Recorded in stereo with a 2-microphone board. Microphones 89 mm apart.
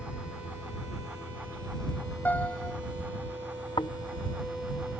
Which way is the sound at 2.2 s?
20° left (ahead or behind).